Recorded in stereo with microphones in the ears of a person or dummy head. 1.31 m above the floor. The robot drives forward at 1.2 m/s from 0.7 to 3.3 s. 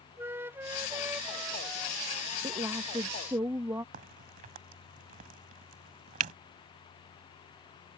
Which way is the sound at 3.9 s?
50° right (ahead or behind).